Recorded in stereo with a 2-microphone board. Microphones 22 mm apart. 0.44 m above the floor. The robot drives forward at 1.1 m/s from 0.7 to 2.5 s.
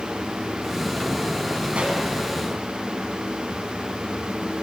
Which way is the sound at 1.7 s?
65° right (ahead or behind).